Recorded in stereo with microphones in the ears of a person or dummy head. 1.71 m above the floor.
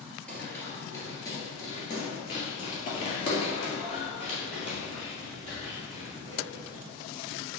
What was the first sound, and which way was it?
Running footsteps, 10° left (ahead or behind).